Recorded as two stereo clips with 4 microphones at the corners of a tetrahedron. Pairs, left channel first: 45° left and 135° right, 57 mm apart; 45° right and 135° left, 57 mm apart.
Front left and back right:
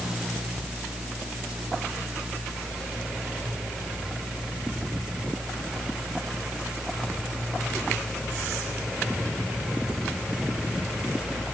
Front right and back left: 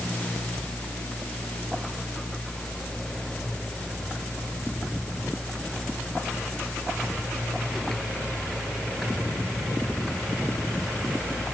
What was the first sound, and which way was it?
Only background noise.